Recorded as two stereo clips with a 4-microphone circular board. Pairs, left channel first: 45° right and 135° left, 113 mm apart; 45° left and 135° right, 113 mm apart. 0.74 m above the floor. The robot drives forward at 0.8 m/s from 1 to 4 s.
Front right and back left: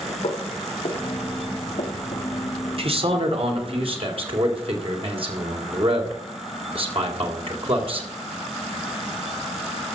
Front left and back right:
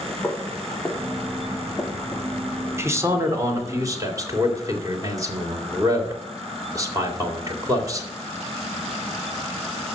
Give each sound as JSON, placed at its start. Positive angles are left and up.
{"t": 0.2, "sound": "footsteps", "azimuth_deg": -35, "distance_m": 4.5}
{"t": 2.8, "sound": "a man speaking", "azimuth_deg": 160, "distance_m": 2.5}